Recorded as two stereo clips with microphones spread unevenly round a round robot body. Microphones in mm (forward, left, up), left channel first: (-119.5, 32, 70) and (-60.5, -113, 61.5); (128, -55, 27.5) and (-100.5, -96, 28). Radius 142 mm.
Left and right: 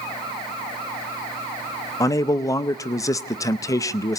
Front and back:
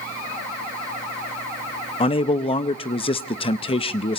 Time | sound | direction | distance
2.0 | a man speaking | 55° left | 0.6 m